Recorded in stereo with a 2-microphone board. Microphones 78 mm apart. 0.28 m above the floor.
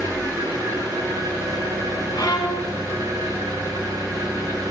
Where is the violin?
65° left (ahead or behind), 0.9 m.